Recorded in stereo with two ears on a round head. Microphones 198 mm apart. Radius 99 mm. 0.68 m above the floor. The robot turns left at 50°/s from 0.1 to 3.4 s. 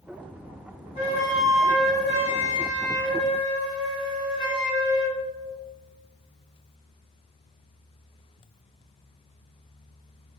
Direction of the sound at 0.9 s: 145° left.